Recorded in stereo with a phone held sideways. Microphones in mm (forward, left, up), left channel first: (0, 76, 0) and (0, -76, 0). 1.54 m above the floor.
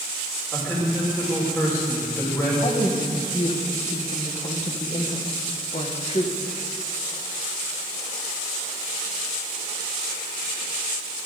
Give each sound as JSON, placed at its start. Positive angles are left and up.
{"t": 0.5, "sound": "a man speaking", "side_deg": 15, "distance_m": 6.5}
{"t": 2.6, "sound": "a woman speaking", "side_deg": 45, "distance_m": 1.7}